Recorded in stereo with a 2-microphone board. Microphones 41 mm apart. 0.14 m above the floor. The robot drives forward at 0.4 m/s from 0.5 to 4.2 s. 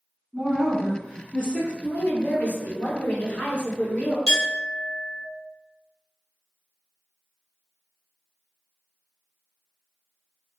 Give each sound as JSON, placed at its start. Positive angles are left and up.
{"t": 0.3, "sound": "a woman speaking", "side_deg": -20, "distance_m": 1.0}
{"t": 1.8, "sound": "a woman speaking", "side_deg": 40, "distance_m": 1.8}
{"t": 4.3, "sound": "a clink", "side_deg": 10, "distance_m": 1.9}